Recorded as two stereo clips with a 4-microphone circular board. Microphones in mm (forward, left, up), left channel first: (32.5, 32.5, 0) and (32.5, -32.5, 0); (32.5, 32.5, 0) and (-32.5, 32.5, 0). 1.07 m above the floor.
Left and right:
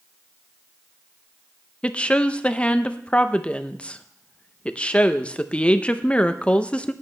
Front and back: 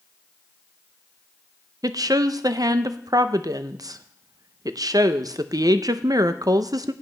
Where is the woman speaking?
160° left, 0.6 m.